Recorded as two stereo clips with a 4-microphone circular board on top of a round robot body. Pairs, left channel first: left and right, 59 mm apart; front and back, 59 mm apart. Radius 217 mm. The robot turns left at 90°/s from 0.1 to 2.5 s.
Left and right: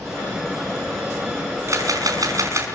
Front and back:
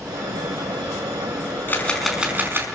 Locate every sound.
1.7 s a camera shutter: 55° right, 5.5 m; by 2.7 s 130° right, 5.5 m